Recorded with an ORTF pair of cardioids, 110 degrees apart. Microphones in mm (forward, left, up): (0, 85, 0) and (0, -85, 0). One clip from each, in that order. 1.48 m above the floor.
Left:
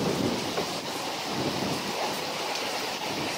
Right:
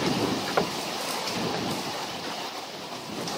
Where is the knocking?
45° right.